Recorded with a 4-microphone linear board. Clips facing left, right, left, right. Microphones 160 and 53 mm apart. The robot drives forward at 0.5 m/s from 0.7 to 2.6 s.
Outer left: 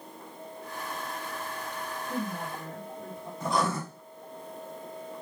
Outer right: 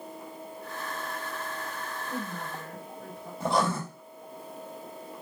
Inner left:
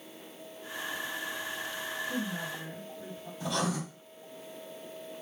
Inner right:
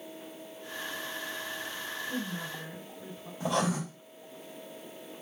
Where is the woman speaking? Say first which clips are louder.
Outer left 4 dB, even; 15° left (ahead or behind), 2.5 m.